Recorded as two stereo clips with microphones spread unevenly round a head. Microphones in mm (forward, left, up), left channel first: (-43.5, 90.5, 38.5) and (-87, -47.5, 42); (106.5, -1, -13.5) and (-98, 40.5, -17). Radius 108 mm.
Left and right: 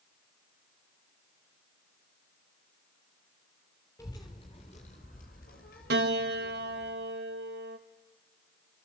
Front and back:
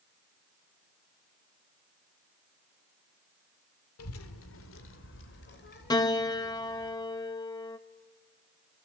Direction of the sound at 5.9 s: 85° right.